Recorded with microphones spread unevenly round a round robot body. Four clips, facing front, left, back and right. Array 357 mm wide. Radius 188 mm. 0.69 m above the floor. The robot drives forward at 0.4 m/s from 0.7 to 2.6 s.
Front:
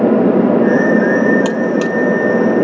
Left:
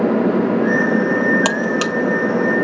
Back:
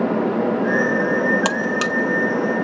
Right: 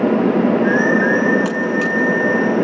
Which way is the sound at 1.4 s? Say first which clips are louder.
Even, front 6 dB; 135° left.